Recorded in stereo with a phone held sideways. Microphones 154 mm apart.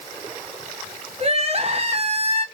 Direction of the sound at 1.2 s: 40° right (ahead or behind).